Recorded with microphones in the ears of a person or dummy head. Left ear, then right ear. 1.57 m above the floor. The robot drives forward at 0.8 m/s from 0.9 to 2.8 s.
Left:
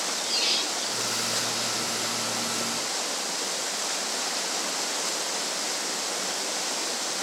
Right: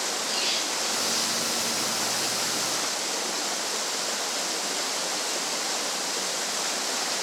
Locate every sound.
0.2 s a squeak: 20° left (ahead or behind), 1.4 m